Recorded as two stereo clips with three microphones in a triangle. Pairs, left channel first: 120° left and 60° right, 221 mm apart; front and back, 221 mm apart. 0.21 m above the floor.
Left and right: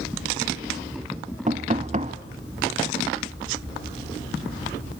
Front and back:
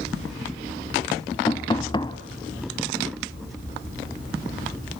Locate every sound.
1.5 s knocking: 50° right, 1.0 m